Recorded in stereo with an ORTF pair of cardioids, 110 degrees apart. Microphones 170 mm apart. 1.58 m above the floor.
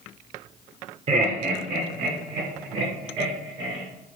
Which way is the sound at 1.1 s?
35° right.